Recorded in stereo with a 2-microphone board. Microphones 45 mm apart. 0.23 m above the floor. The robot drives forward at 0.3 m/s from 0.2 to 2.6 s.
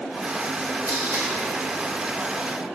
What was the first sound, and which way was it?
Tape being pulled, 55° right (ahead or behind).